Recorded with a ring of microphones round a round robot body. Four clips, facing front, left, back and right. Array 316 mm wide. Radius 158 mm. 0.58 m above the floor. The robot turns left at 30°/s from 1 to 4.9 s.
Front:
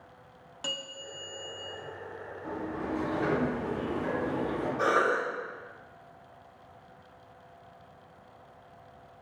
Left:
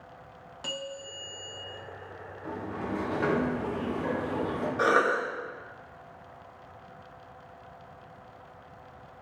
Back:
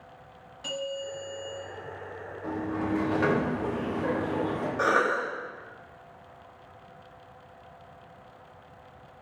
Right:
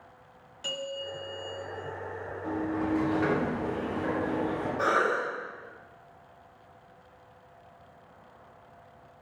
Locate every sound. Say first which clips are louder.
0.6 s a bell: right 3 dB, back 9 dB; 35° left, 1.0 m; by 1.6 s 20° left, 1.0 m
2.4 s a sliding door: right 5 dB, back 5 dB; 155° right, 0.6 m; by 4.7 s 135° left, 0.6 m
4.8 s a cough: left 2 dB, back 1 dB; 130° left, 0.6 m; by 5.2 s 125° left, 0.6 m